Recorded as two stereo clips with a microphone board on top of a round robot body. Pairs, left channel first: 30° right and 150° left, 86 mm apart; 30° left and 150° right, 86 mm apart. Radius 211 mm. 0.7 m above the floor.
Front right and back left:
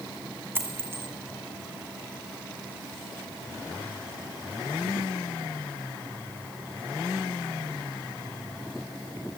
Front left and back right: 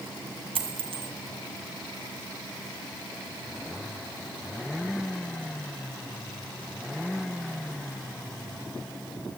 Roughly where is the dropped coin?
Behind right.